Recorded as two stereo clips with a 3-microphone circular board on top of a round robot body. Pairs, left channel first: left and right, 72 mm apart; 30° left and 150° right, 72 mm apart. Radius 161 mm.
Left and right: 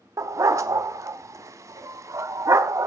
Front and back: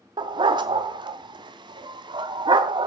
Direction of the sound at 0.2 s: 135° right.